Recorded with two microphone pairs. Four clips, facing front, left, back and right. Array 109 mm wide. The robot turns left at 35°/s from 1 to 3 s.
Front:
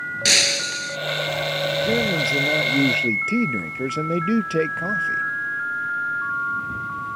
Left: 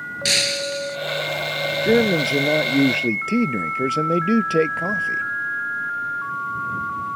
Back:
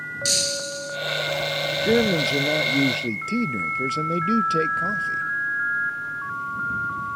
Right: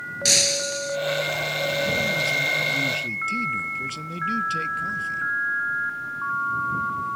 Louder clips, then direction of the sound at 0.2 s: Left 2 dB, front 3 dB; 5° left.